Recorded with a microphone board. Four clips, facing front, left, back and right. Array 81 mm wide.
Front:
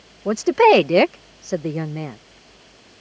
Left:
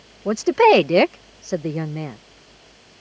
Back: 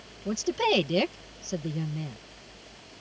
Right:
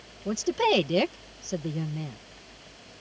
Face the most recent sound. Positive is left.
turn(degrees=40)